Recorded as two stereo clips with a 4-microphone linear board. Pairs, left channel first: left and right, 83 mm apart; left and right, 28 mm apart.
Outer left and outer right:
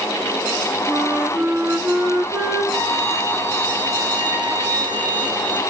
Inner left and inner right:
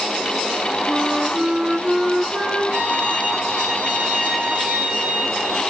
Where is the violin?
65° right (ahead or behind), 8.5 m.